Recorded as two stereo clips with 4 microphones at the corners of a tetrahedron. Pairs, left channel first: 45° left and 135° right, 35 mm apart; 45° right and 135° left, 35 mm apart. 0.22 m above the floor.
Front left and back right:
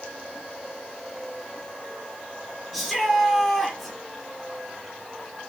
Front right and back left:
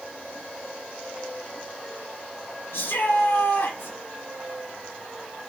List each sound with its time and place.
2.7 s a shout: 45° right, 6 m